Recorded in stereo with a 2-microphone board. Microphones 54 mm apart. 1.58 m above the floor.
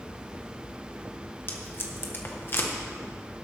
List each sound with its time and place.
1.5 s tape being pulled: 40° left (ahead or behind), 1.4 m